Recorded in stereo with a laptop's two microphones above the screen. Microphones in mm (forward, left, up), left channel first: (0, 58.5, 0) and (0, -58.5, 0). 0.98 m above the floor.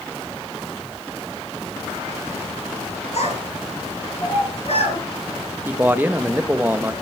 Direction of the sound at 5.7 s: 15° right (ahead or behind).